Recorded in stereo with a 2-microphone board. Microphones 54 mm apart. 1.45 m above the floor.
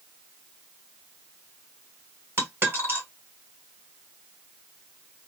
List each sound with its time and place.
2.4 s a dropped coin: 45° right (ahead or behind), 1.6 m